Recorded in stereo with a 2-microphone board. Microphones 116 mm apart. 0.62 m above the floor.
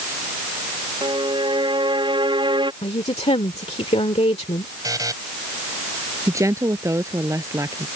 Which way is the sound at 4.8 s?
30° right (ahead or behind).